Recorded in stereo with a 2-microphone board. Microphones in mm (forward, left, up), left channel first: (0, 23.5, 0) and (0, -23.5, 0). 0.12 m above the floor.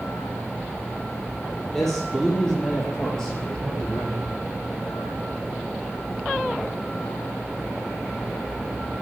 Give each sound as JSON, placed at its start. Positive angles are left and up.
{"t": 1.7, "sound": "a man speaking", "side_deg": 5, "distance_m": 4.0}